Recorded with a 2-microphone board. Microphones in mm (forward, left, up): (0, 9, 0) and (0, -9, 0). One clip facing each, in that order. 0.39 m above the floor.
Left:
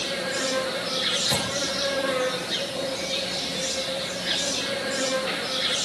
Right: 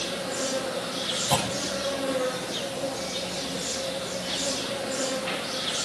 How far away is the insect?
About 10 m.